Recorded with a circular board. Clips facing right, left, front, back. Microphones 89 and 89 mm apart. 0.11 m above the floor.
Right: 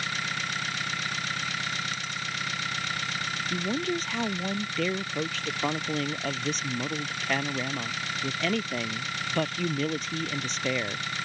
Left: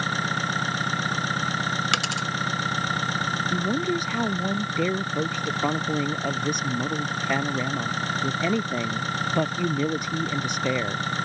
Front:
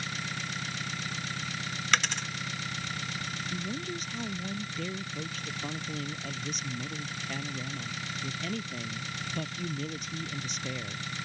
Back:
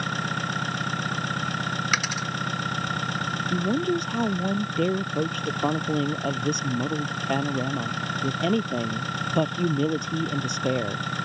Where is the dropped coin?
95° left.